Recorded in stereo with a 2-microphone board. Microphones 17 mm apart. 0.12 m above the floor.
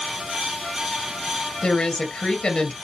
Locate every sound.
1.6 s a woman speaking: 55° left (ahead or behind), 2.5 m